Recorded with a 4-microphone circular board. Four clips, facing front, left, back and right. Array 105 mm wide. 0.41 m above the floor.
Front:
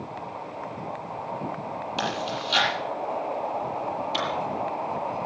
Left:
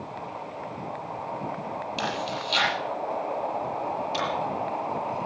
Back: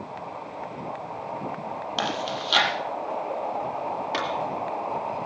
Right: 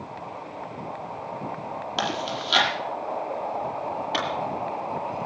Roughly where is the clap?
Behind right.